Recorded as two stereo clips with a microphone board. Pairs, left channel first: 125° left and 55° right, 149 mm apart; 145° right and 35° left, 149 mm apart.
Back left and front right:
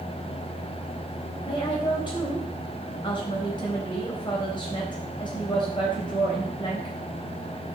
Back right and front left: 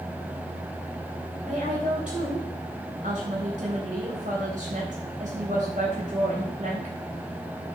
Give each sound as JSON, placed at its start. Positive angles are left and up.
{"t": 1.4, "sound": "a woman speaking", "azimuth_deg": 65, "distance_m": 3.5}